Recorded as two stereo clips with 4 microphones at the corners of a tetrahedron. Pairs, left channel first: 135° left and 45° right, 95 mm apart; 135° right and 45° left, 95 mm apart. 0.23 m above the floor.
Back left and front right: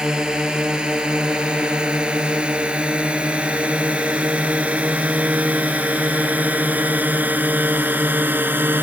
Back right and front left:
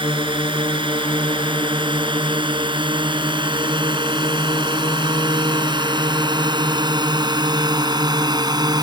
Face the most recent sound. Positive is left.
turn(degrees=20)